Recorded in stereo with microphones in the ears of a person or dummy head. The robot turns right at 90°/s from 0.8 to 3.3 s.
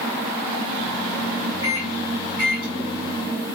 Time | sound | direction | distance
1.6 | a microwave | 70° left (ahead or behind) | 1.3 m